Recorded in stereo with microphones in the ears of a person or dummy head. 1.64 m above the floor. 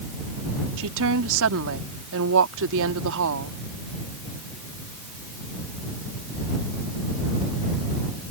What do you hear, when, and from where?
0.8 s a woman speaking: 70° right (ahead or behind)